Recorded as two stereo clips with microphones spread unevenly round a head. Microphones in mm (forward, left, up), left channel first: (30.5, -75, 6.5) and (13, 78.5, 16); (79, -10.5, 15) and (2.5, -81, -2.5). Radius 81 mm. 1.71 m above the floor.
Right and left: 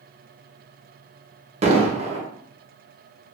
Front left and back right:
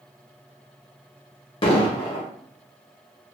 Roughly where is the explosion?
Ahead left.